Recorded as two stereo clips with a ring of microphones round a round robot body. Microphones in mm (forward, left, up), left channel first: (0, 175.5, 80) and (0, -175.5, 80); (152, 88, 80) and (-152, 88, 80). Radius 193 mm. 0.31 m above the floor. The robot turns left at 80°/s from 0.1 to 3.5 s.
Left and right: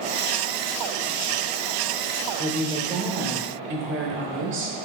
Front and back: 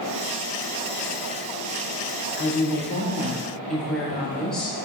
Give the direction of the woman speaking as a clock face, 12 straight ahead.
12 o'clock.